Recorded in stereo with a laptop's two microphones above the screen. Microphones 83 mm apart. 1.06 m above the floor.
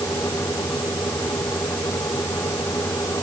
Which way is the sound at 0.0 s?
35° left (ahead or behind).